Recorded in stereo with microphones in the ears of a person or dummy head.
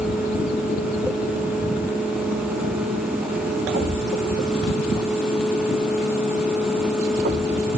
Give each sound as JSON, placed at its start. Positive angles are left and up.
{"t": 3.7, "sound": "a thud", "side_deg": -45, "distance_m": 6.0}